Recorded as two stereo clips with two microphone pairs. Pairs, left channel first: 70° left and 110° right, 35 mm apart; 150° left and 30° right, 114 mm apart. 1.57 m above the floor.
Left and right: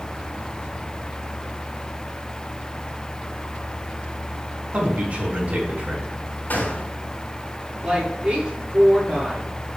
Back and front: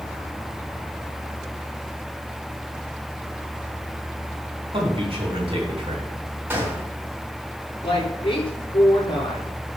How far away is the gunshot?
About 4 m.